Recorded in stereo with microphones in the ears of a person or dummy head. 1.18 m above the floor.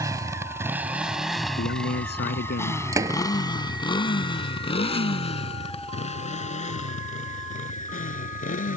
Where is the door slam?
20° right (ahead or behind).